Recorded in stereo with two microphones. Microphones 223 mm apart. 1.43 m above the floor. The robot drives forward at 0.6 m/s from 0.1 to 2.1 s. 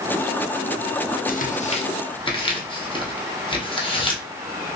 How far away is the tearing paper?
About 0.5 m.